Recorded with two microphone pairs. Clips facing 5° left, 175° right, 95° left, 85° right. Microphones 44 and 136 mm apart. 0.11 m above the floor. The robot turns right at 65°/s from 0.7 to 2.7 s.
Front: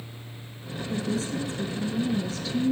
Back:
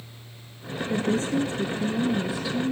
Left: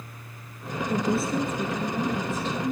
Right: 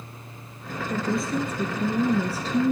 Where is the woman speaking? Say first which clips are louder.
Back 5 dB, left 1 dB; 160° left, 1.4 m; by 2.7 s 85° right, 1.4 m.